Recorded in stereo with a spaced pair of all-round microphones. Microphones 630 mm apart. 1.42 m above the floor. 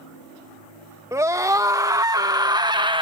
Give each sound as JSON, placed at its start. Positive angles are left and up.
{"t": 1.1, "sound": "a scream", "side_deg": -5}